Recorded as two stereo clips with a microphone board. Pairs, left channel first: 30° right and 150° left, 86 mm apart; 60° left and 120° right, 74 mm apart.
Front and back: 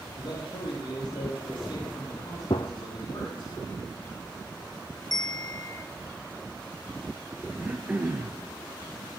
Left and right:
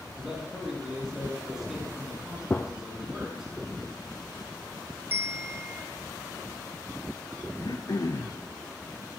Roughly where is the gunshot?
Ahead.